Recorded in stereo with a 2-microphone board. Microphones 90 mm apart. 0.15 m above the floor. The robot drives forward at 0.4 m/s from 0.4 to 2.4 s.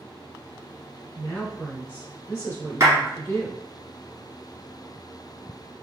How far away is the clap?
About 2.0 m.